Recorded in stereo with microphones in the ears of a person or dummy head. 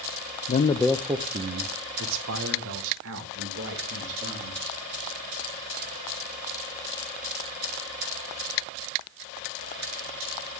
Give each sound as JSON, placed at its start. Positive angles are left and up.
{"t": 0.5, "sound": "a man speaking", "side_deg": 40, "distance_m": 0.6}